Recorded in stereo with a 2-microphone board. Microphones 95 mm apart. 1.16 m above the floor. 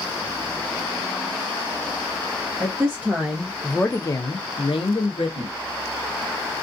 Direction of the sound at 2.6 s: 30° right (ahead or behind).